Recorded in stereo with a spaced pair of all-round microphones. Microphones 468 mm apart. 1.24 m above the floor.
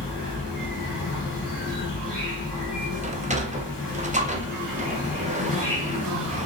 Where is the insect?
60° left (ahead or behind), 2.5 m.